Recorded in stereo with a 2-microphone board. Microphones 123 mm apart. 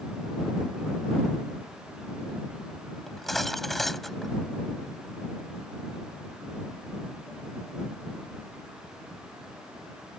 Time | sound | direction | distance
3.1 | cutlery clinking | centre (ahead or behind) | ?